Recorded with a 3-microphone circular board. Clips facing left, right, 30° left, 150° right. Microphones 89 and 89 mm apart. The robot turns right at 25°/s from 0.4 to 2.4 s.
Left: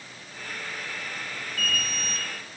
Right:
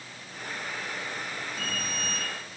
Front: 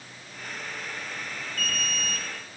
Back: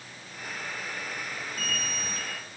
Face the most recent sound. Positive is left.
turn(degrees=-100)